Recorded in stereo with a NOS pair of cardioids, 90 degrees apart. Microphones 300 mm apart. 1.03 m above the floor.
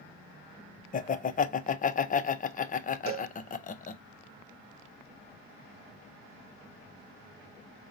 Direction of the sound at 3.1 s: 45° right.